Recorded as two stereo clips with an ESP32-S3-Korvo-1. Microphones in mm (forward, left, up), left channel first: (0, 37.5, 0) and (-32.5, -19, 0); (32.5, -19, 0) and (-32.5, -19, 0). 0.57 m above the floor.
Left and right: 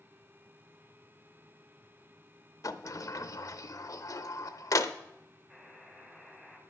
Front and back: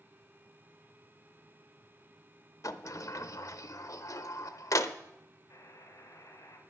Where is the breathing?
I don't hear breathing.